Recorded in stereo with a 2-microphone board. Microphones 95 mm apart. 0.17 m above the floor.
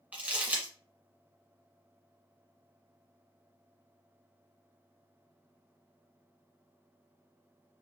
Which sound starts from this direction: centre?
Crumpling, at 0.1 s.